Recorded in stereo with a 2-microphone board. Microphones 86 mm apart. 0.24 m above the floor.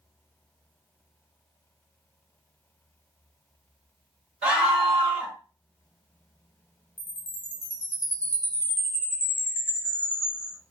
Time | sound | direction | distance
4.4 | a scream | 10° right (ahead or behind) | 1.7 m
7.0 | a chime | 25° left (ahead or behind) | 1.4 m